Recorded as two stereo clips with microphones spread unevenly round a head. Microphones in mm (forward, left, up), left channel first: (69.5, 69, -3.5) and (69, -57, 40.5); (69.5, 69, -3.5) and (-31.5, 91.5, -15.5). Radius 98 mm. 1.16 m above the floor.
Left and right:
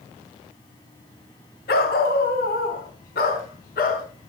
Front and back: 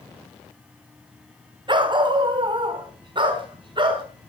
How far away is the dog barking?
About 2.5 m.